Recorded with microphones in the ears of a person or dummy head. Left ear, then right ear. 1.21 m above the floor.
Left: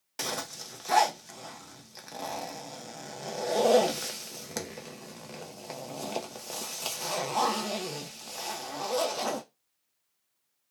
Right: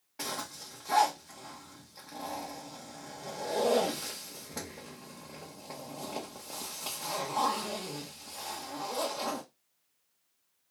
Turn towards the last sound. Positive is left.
turn(degrees=80)